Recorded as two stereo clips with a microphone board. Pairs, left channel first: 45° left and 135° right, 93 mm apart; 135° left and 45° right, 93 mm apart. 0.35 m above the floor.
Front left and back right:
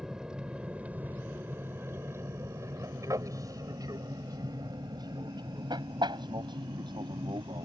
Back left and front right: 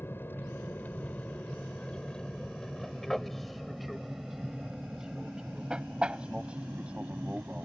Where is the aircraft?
150° left; by 7.7 s 120° right.